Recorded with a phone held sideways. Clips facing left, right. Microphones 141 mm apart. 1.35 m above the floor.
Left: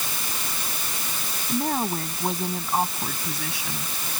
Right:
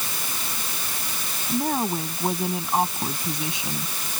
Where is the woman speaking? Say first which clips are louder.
Right 1 dB; centre (ahead or behind); by 3.9 s 25° right (ahead or behind).